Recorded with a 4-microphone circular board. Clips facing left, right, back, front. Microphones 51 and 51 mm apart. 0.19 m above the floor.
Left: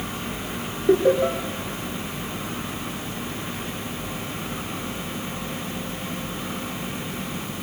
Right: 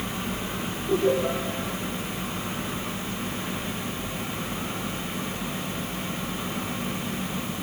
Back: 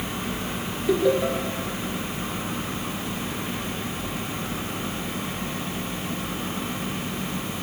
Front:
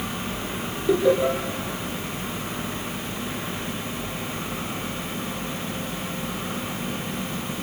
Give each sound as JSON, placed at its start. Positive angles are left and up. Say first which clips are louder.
{"t": 0.9, "sound": "laughter", "louder": "left 5 dB, front 2 dB", "azimuth_deg": 85, "distance_m": 4.0}